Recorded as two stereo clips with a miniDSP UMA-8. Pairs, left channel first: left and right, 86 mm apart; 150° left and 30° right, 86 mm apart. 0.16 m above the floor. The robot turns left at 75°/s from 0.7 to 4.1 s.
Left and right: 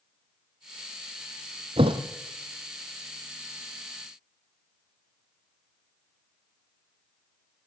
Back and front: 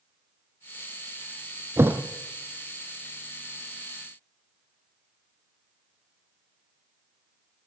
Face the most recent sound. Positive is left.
turn(degrees=95)